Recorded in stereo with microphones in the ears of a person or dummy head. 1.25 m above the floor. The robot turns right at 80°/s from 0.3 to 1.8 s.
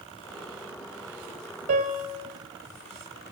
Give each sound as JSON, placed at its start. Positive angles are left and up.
{"t": 1.7, "sound": "a piano", "side_deg": -40, "distance_m": 6.0}